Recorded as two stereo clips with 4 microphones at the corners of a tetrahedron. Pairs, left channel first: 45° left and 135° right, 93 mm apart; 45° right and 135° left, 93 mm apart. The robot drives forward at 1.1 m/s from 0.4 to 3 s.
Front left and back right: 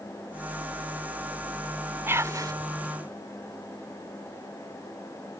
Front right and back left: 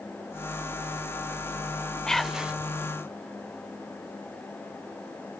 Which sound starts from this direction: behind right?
Whispering, at 2.1 s.